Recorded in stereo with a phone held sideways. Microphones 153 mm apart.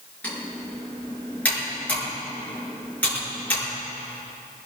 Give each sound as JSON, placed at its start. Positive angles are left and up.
{"t": 0.2, "sound": "typing on a keyboard", "side_deg": 10, "distance_m": 6.5}